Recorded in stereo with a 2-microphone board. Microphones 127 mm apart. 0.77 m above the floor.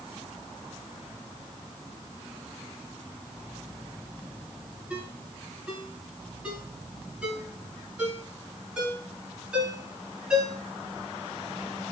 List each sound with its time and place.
4.9 s a ringtone: 10° right (ahead or behind), 8 m